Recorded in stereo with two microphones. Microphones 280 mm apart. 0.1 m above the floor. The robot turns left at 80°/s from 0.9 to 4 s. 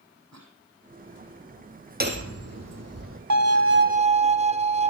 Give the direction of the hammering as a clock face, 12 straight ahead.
1 o'clock.